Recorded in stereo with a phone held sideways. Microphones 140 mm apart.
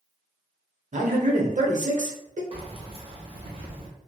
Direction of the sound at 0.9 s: 60° right (ahead or behind).